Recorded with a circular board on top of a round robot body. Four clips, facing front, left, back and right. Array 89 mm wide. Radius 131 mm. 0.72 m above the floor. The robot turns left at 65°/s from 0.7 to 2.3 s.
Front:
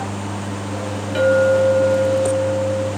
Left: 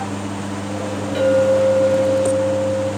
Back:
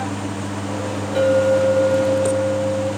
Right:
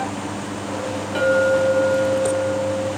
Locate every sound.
1.1 s a clink: 10° right, 1.2 m; by 2.9 s 85° right, 1.2 m